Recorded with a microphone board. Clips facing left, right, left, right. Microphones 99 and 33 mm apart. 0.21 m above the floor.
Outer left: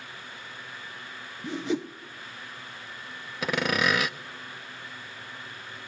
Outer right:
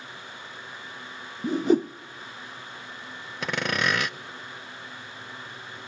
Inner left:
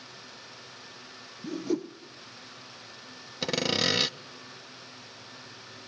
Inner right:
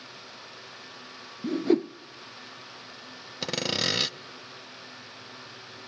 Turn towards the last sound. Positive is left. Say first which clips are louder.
# outer left 1 dB, inner left 1 dB
turn(degrees=0)  # may be behind; listen again after turning